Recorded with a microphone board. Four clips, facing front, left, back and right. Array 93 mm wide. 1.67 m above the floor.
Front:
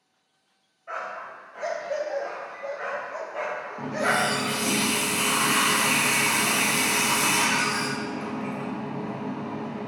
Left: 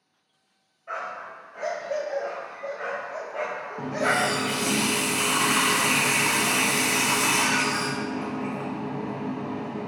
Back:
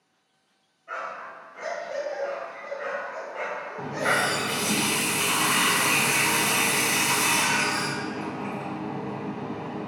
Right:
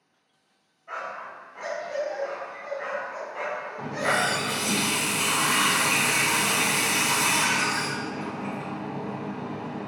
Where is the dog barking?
60° left, 2.0 m.